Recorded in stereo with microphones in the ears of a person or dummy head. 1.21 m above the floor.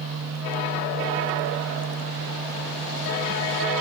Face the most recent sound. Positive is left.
turn(degrees=-70)  # may be behind; listen again after turning